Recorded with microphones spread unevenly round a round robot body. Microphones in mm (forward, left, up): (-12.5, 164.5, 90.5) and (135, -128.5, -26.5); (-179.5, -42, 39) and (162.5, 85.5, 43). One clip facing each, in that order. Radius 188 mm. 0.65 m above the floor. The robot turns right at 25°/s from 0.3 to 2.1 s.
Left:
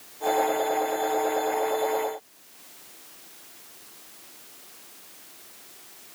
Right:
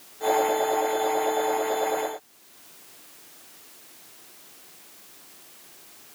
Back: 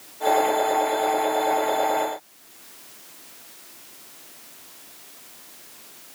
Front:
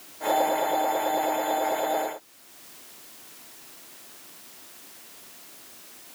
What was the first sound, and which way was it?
Only background noise.